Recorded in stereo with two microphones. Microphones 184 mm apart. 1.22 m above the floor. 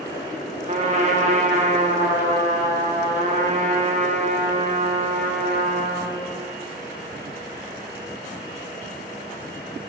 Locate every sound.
0.7 s a trumpet: 40° right (ahead or behind), 0.8 m